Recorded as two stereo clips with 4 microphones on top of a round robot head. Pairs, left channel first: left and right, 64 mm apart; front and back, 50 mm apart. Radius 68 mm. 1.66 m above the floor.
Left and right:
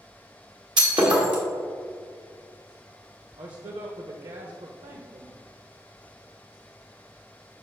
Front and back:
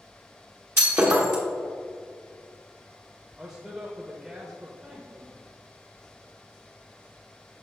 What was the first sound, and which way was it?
Breaking glass, 120° right.